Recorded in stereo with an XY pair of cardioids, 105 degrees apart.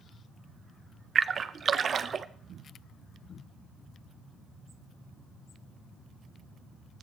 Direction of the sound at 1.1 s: 45° right.